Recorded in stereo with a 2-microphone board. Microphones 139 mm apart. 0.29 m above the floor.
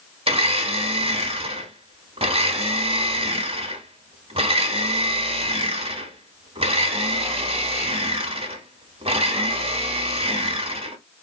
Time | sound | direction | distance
0.3 | a blender | 45° right (ahead or behind) | 0.9 m